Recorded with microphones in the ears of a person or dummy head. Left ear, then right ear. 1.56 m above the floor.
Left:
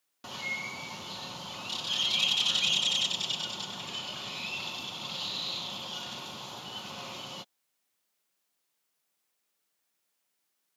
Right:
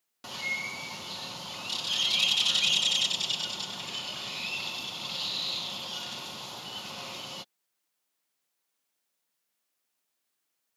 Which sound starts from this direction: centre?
A bird, at 0.2 s.